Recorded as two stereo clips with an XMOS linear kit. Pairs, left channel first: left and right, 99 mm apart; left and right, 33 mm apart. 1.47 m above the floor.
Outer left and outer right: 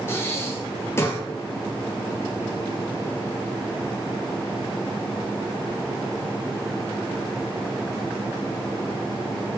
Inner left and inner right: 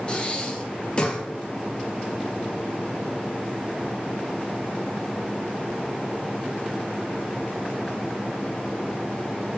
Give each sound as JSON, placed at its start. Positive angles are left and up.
{"t": 0.1, "sound": "breathing", "side_deg": 25, "distance_m": 0.7}